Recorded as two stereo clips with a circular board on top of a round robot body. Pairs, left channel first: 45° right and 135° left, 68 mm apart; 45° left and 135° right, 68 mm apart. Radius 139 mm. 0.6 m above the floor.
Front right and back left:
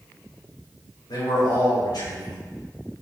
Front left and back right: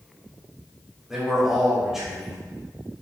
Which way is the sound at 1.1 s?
50° right.